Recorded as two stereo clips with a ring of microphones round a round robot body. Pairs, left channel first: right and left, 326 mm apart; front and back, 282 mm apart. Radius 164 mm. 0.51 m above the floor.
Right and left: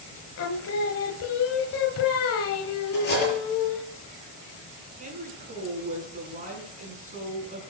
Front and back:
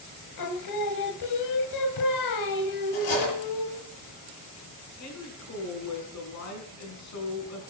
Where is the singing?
40° right, 1.2 m.